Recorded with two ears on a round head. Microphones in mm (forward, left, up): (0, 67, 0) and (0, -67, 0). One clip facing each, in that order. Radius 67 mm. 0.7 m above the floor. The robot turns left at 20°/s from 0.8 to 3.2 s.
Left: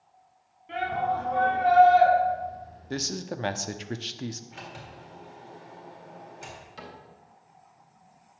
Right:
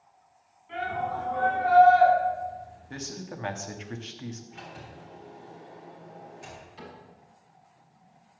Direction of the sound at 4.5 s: 70° left (ahead or behind).